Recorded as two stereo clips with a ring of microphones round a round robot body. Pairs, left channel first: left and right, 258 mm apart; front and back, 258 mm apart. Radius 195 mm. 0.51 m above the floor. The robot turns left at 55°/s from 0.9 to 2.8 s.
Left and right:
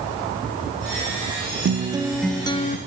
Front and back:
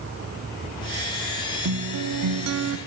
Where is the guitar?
150° right, 0.7 m; by 2.8 s 150° left, 0.7 m.